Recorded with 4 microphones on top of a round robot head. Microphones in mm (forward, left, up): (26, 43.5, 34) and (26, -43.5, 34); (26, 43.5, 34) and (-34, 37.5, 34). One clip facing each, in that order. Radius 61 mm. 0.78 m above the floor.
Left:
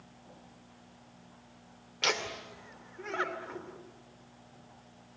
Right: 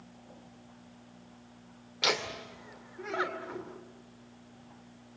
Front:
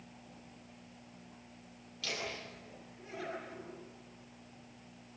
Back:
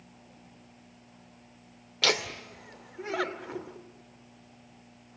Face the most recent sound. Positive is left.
turn(degrees=-175)